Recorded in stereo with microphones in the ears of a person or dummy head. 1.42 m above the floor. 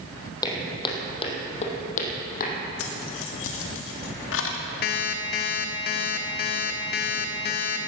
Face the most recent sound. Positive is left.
turn(degrees=40)  # may be behind; listen again after turning